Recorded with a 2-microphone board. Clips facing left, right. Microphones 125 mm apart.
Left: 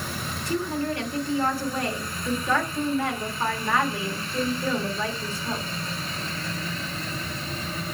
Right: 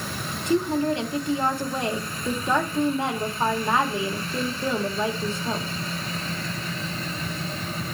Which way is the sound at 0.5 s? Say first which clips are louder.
Right 5 dB; 20° right (ahead or behind).